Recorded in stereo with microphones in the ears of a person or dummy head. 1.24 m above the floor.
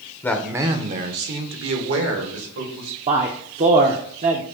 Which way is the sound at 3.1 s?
30° right (ahead or behind).